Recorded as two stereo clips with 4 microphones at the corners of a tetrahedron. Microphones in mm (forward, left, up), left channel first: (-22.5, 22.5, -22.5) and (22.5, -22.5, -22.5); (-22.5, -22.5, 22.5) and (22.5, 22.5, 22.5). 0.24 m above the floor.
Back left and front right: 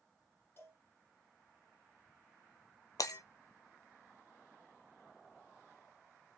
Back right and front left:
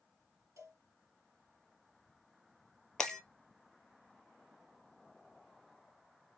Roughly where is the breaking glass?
Behind left.